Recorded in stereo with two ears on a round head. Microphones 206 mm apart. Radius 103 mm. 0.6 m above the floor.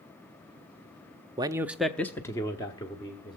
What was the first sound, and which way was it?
A man speaking, 20° right (ahead or behind).